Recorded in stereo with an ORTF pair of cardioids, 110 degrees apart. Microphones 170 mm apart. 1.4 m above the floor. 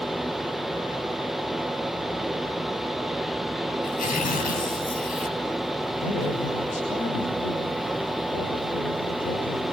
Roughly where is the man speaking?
Ahead left.